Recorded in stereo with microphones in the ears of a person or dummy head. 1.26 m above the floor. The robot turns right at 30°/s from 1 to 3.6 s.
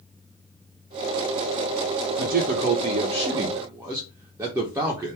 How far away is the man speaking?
About 0.8 m.